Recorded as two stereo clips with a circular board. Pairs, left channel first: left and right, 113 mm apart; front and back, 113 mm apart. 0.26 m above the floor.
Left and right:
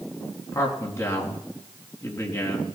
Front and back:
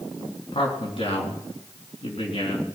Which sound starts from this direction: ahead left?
A man speaking, at 0.5 s.